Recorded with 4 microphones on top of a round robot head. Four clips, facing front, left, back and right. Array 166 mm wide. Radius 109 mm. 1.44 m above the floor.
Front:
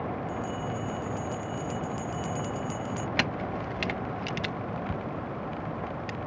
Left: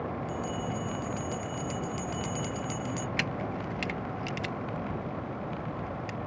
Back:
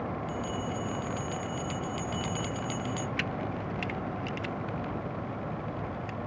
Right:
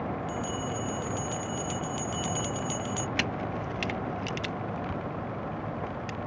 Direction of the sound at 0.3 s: 165° right.